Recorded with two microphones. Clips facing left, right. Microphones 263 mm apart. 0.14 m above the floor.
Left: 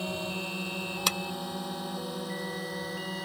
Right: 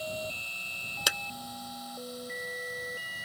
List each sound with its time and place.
0.0 s a drone: 70° left (ahead or behind); by 3.2 s 75° left (ahead or behind)
1.1 s a clap: 10° right (ahead or behind)